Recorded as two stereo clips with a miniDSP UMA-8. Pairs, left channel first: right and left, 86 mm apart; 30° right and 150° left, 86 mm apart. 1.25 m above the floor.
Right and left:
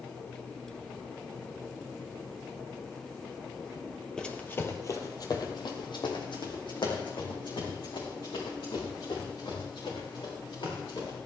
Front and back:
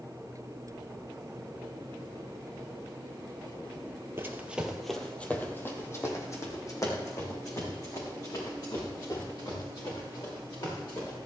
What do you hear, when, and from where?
4.2 s running footsteps: 165° right, 1.6 m; by 11.2 s 65° right, 9 m